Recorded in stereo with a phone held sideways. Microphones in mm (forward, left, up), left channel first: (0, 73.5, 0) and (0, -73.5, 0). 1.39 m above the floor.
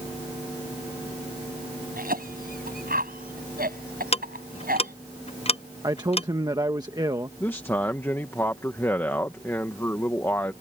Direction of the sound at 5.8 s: 25° right (ahead or behind).